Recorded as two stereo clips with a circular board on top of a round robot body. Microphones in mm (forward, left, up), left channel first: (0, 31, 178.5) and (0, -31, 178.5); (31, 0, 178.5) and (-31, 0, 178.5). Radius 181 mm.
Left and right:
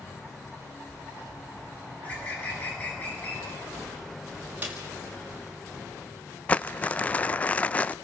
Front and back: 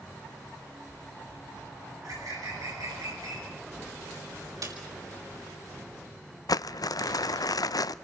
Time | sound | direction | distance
1.9 | a bird | 155° left | 9 m
4.6 | a snare drum | 155° right | 6 m
6.5 | crumpling | 20° left | 0.5 m